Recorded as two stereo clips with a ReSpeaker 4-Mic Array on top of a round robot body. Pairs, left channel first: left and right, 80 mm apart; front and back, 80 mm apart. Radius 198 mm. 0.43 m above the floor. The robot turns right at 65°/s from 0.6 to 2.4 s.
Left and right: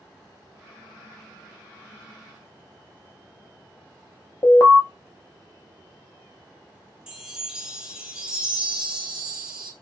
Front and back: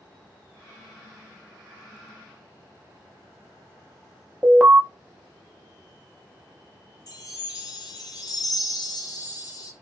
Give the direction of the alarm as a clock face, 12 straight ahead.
9 o'clock.